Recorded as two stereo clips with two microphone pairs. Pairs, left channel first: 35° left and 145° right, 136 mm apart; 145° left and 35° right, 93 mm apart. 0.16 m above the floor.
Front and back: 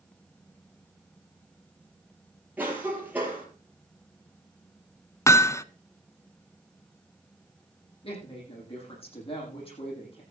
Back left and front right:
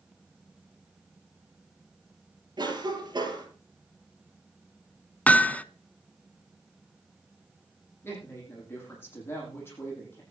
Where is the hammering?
85° left, 0.6 m.